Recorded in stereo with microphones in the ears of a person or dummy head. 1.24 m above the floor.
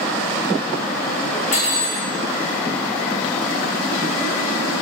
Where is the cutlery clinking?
45° left (ahead or behind), 0.6 m.